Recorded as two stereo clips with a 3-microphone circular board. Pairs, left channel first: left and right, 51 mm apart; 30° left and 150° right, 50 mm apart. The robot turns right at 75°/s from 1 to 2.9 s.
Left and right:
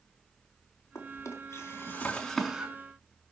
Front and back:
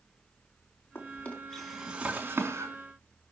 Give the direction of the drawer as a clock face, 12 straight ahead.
10 o'clock.